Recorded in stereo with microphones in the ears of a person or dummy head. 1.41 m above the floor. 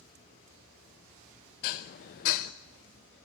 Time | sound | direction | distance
1.6 | dishes clattering | 40° left (ahead or behind) | 0.6 m